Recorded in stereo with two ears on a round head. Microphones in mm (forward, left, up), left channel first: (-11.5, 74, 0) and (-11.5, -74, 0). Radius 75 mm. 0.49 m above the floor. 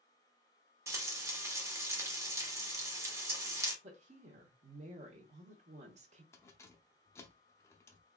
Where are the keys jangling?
15° left (ahead or behind), 0.6 m.